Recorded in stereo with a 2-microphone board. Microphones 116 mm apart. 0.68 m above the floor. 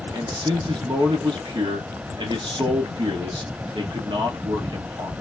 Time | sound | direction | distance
0.1 | a man speaking | 40° right (ahead or behind) | 1.3 m